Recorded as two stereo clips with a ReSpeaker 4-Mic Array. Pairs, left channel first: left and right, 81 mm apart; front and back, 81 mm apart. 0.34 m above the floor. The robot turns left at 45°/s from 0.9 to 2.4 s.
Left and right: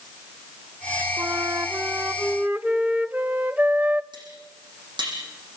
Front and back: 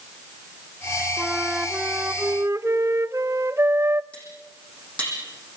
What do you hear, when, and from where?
1.2 s a flute: 95° right, 0.6 m; by 4.0 s 150° right, 0.6 m
4.1 s cutlery clinking: 75° right, 8.5 m